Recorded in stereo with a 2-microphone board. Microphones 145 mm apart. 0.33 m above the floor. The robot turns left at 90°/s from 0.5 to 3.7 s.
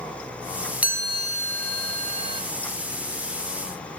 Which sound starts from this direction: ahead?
A chime, at 0.8 s.